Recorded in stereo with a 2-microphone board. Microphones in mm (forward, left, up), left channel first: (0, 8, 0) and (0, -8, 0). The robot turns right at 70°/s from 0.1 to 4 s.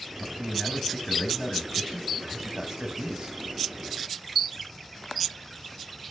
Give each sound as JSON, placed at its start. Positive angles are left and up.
{"t": 0.2, "sound": "a man speaking", "azimuth_deg": 25, "distance_m": 3.0}